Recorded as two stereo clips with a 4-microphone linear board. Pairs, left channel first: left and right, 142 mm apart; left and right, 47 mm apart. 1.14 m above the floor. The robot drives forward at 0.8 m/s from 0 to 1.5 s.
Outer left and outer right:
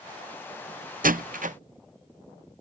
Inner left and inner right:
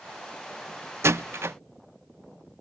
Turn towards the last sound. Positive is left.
turn(degrees=-65)  # may be behind; listen again after turning